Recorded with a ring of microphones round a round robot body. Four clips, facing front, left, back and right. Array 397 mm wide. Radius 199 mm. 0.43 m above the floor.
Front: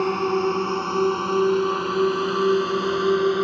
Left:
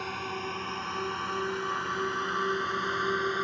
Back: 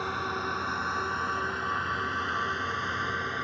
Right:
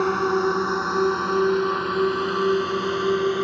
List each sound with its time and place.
0.0 s a drone: 45° right; by 3.4 s 25° right